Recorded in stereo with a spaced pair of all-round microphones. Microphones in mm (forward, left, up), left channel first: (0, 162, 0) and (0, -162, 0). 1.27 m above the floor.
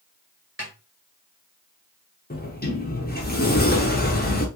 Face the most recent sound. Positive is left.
turn(degrees=30)  # may be behind; listen again after turning